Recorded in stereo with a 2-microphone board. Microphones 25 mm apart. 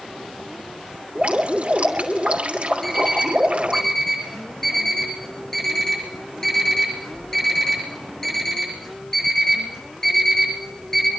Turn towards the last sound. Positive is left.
turn(degrees=20)  # may be behind; listen again after turning